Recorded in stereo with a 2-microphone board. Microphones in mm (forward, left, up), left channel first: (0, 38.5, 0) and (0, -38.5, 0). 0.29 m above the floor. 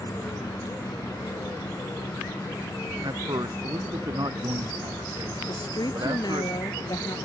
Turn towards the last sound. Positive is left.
turn(degrees=65)  # may be behind; listen again after turning